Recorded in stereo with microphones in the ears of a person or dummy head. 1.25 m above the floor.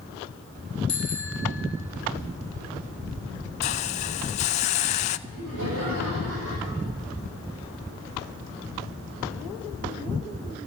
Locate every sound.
0.9 s a bicycle bell: 5° left (ahead or behind), 3.5 m
3.6 s a hiss: 35° left (ahead or behind), 0.6 m
5.3 s laughter: 80° right, 7.5 m